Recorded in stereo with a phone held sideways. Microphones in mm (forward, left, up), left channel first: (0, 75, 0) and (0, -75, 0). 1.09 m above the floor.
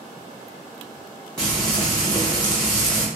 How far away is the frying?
About 1.2 m.